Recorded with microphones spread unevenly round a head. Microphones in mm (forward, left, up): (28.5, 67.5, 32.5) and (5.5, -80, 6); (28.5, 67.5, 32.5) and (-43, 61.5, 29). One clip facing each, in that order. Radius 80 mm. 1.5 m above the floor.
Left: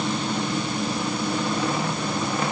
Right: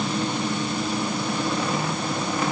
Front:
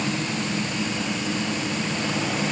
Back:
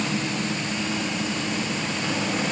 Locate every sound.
Only background noise.